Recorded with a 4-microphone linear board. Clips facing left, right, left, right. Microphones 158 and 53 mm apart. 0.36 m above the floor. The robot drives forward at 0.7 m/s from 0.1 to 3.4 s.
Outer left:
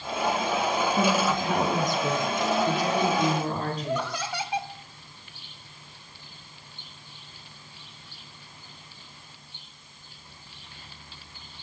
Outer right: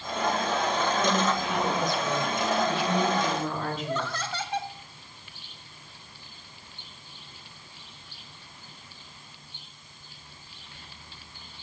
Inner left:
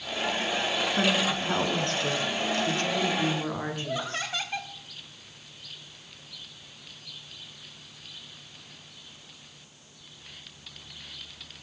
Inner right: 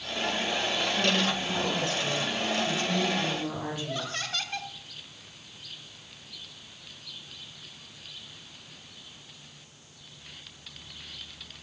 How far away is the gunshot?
No gunshot in this recording.